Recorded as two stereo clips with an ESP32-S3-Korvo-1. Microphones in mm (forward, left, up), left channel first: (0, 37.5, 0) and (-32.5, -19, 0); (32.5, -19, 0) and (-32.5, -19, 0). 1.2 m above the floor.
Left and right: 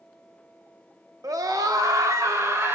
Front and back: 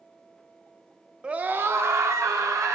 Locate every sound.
1.2 s a scream: 105° right, 0.9 m; by 2.8 s 160° right, 1.9 m